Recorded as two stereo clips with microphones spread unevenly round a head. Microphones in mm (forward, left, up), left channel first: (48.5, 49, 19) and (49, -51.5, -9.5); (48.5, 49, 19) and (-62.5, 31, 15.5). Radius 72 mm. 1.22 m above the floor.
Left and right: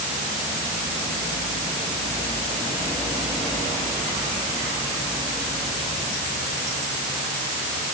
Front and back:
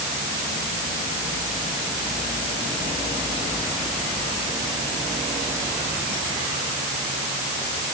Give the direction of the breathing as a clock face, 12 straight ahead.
No breathing in this recording.